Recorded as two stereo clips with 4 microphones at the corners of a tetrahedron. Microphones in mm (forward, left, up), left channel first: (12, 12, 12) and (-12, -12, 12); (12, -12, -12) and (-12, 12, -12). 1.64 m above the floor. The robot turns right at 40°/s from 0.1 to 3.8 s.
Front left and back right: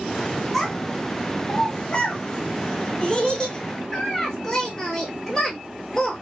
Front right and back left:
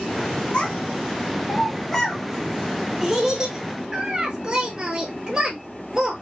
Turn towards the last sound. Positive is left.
turn(degrees=100)